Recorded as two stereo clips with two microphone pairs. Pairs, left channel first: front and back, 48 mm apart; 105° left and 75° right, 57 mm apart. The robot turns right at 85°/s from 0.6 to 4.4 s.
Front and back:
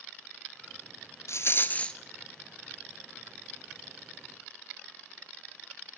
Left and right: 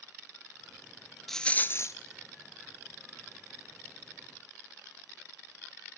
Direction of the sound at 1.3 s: 20° left.